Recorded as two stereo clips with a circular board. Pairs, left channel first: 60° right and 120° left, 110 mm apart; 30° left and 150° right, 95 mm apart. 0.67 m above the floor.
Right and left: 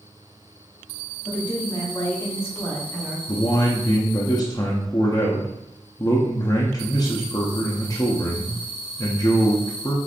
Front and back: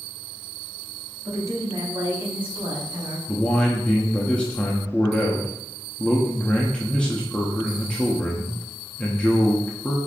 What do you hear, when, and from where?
1.2 s a woman speaking: 95° right, 1.6 m; by 3.2 s 150° right, 1.4 m
3.3 s a man speaking: 45° right, 0.6 m